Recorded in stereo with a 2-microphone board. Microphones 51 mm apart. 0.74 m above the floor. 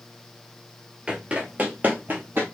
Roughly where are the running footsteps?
Centre.